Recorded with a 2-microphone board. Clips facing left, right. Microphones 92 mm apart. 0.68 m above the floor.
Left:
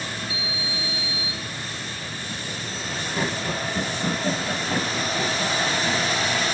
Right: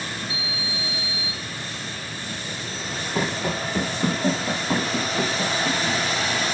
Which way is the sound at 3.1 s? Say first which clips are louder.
Right 2 dB; 80° right.